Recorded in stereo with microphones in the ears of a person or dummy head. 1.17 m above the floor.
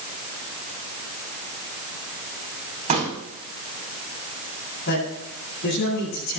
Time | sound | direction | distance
2.9 | a pop | 30° right (ahead or behind) | 5.5 m
4.9 | a man speaking | 65° left (ahead or behind) | 8 m